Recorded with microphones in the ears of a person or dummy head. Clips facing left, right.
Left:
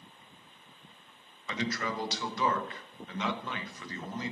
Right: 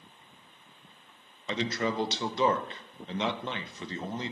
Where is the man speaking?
25° right (ahead or behind), 0.5 m.